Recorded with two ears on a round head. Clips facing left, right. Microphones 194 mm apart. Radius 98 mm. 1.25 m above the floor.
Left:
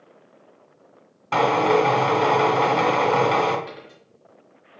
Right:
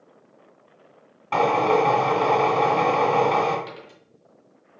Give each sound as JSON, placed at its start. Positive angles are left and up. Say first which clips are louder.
{"t": 1.3, "sound": "a drill", "louder": "left 1 dB", "side_deg": 20, "distance_m": 1.5}
{"t": 3.7, "sound": "a dropped coin", "louder": "left 1 dB", "side_deg": -55, "distance_m": 2.5}